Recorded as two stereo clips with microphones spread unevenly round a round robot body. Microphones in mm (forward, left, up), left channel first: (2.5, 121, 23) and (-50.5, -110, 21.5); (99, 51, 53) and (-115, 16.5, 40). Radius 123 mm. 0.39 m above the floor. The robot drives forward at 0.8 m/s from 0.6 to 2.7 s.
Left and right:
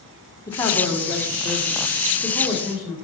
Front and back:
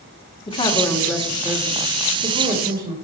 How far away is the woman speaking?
About 1.2 m.